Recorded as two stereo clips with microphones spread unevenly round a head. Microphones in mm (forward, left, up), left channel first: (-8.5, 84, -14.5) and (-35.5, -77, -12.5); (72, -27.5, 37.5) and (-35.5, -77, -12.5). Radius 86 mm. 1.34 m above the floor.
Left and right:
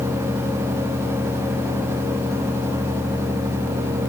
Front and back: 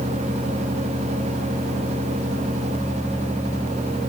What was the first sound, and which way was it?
Only background noise.